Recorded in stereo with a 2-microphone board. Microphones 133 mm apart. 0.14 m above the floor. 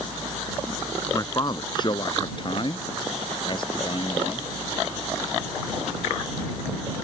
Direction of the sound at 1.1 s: 30° left (ahead or behind).